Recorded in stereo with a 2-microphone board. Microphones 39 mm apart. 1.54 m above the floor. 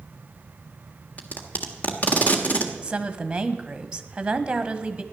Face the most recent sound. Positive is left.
turn(degrees=-20)  # may be behind; listen again after turning